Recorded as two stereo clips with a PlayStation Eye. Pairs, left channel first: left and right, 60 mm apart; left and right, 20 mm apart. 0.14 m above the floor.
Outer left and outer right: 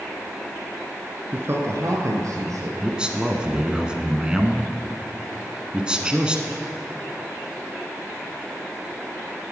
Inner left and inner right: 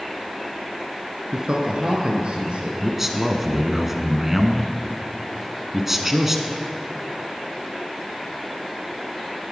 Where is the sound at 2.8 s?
15° right (ahead or behind), 1.1 m.